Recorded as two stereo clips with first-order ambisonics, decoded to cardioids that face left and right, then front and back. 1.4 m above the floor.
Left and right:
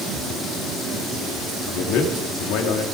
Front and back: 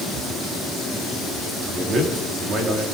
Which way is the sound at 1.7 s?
120° left.